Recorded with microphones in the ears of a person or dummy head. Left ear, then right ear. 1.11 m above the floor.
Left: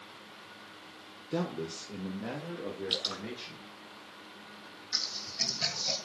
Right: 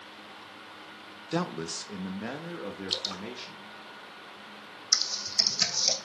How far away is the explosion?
No explosion in this recording.